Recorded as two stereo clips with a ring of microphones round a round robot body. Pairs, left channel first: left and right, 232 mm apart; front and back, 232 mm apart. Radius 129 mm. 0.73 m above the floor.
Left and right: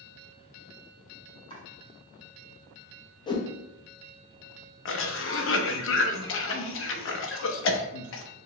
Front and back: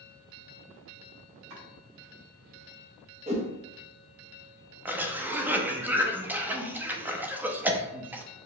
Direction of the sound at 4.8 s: 100° left.